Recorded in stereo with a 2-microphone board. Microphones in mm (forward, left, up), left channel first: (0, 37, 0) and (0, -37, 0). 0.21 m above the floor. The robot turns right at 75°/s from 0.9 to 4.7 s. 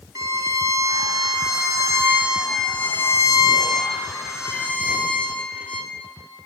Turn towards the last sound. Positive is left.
turn(degrees=160)